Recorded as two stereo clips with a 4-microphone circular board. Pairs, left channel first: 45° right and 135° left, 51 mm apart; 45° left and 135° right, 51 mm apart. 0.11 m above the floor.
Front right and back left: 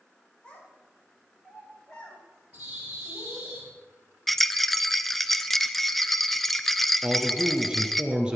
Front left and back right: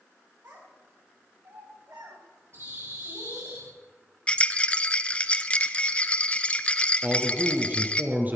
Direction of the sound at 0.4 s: 105° right.